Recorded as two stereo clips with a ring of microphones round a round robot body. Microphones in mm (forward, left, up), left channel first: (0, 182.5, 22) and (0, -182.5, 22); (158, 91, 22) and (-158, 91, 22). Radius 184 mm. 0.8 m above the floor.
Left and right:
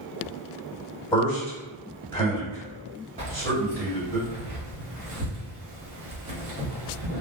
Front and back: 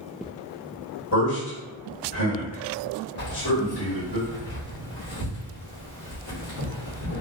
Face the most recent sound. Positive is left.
turn(degrees=-20)